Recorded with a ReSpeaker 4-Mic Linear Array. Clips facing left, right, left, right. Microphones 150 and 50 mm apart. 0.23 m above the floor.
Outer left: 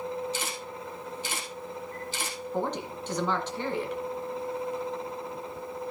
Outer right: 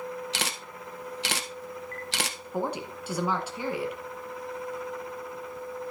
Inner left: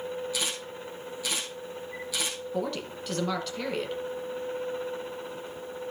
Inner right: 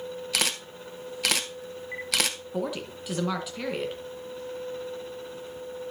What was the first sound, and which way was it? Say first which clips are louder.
A camera shutter: outer left 1 dB, inner right 3 dB; 80° right.